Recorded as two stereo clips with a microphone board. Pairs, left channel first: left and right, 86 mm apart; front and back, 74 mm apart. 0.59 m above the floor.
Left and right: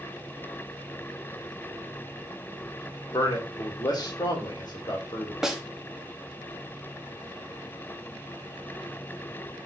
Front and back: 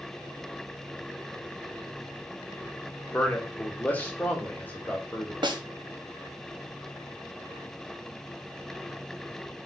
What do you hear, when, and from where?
3.1 s a man speaking: 65° left, 1.2 m
5.4 s a snare drum: 175° right, 0.6 m